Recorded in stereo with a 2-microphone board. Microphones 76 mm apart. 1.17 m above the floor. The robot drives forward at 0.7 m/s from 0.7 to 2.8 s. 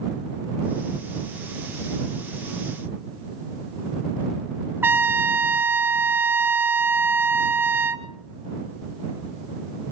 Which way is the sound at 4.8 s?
30° right (ahead or behind).